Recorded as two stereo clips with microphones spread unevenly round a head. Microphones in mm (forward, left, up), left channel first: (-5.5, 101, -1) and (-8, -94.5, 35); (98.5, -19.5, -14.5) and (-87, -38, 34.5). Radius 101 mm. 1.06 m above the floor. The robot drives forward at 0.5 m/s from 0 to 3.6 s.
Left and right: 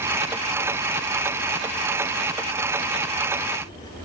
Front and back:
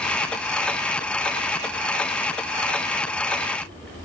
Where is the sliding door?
I don't hear a sliding door.